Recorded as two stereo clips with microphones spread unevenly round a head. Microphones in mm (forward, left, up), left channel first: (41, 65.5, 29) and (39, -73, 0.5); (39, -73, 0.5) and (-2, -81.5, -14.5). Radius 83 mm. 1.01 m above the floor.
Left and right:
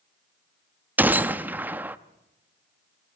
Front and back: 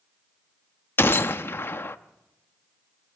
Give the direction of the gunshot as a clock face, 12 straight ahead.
12 o'clock.